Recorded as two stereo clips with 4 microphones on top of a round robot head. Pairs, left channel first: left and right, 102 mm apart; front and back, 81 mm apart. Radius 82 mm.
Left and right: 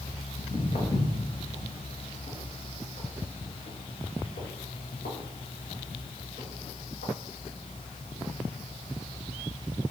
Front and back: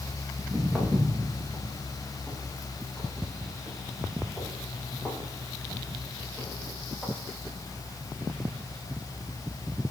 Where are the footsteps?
85° left, 5 m; by 7.1 s 70° left, 10 m.